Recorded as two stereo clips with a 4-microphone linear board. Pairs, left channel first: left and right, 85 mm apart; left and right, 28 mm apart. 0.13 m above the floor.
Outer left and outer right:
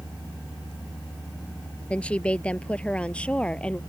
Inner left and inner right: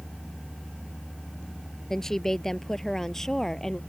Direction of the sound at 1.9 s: 15° left (ahead or behind).